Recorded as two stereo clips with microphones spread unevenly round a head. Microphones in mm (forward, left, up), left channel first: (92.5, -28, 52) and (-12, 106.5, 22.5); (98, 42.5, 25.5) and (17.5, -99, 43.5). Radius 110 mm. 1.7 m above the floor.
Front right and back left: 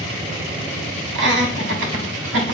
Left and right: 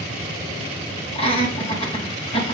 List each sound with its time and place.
1.1 s laughter: 125° left, 3 m